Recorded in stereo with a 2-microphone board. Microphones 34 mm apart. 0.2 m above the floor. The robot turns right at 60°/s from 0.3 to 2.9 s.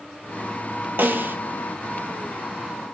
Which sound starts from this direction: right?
A snare drum, at 1.0 s.